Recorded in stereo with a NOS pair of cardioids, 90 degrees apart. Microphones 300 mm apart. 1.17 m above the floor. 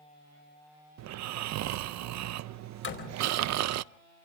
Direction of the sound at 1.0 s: 65° right.